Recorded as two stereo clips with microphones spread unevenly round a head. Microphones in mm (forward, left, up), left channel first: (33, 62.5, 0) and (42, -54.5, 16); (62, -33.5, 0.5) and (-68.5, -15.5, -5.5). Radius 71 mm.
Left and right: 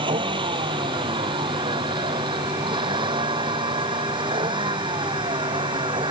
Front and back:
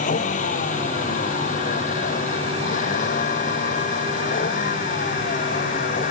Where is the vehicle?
35° right.